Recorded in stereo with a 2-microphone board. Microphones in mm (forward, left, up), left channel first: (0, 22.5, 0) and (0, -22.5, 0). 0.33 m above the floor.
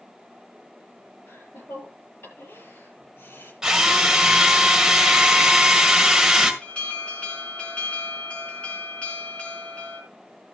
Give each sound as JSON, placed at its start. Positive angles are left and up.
{"t": 1.3, "sound": "laughter", "side_deg": 55, "distance_m": 6.5}
{"t": 3.6, "sound": "a drill", "side_deg": -15, "distance_m": 1.8}
{"t": 6.6, "sound": "an alarm", "side_deg": 25, "distance_m": 4.5}